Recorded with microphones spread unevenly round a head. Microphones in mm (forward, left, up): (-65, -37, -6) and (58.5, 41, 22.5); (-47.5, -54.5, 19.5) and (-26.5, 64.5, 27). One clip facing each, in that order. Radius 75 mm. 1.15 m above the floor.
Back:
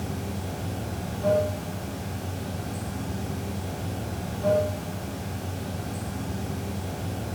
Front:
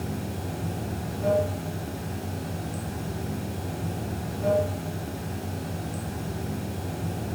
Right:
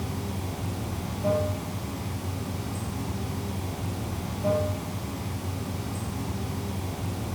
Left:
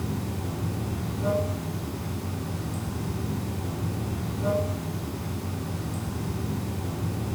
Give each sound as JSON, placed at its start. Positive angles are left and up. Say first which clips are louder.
{"t": 0.0, "sound": "running water", "louder": "even, left 2 dB", "azimuth_deg": 90, "distance_m": 3.0}